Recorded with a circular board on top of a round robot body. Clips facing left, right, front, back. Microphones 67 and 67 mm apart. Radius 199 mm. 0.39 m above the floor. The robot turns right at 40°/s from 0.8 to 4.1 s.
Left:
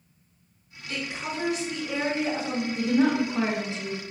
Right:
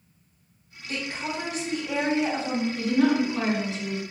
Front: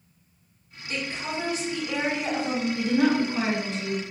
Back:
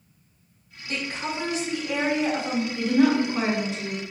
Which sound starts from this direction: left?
A woman speaking, at 2.8 s.